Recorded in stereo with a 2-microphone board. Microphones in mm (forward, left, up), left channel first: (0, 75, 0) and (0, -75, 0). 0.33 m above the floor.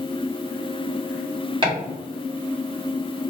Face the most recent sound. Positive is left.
turn(degrees=-30)  # may be behind; listen again after turning